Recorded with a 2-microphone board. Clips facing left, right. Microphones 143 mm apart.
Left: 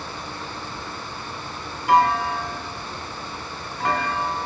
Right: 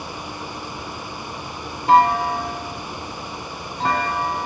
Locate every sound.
1.9 s a clunk: 30° right (ahead or behind), 1.5 m